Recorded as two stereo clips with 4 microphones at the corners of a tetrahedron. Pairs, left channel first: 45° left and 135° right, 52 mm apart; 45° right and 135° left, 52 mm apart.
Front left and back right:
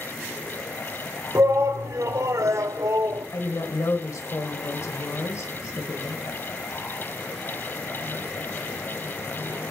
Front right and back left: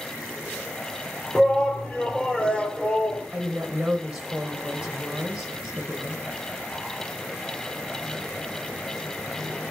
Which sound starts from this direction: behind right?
A shout, at 1.4 s.